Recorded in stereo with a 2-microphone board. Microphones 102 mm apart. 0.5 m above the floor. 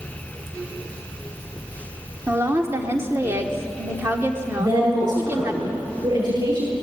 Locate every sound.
2.3 s a woman speaking: 25° right (ahead or behind), 1.4 m
4.6 s a woman speaking: 40° right (ahead or behind), 9.5 m